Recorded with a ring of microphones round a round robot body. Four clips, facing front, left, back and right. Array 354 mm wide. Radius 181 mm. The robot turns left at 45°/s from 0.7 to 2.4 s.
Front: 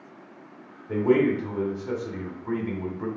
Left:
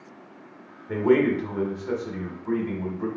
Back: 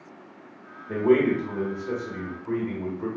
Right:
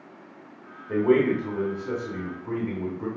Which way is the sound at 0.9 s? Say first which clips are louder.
Even, back 1 dB; 95° left.